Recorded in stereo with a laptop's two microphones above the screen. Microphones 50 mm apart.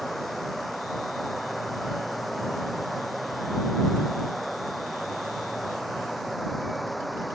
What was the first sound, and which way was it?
Running water, centre (ahead or behind).